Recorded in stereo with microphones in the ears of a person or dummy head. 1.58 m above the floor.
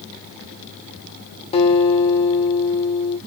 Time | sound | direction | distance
1.5 | a guitar | 35° left (ahead or behind) | 0.9 m